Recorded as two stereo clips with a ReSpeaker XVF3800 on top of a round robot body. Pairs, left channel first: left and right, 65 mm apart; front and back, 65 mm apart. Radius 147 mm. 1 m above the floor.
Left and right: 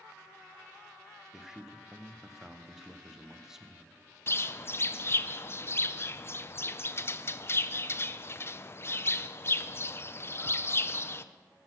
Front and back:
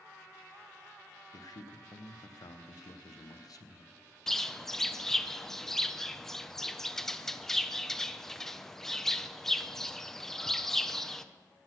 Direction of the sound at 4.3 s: 80° left.